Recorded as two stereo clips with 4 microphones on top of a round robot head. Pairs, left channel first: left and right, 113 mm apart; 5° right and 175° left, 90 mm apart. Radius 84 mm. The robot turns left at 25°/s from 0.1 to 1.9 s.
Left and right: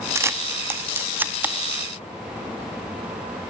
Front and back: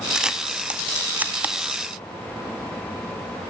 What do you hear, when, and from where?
0.1 s a camera shutter: 110° right, 0.9 m; by 1.5 s 145° right, 0.9 m